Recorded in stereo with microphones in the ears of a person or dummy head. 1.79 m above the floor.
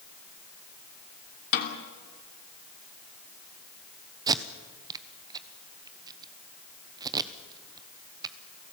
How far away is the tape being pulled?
About 1.1 m.